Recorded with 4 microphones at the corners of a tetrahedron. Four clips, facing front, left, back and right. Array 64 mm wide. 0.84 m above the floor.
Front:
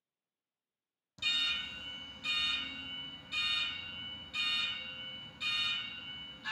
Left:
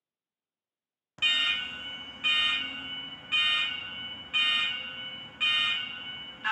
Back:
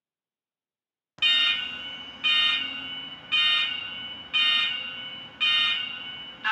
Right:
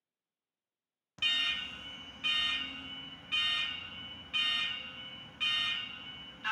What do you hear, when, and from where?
1.2 s an alarm: 160° left, 0.5 m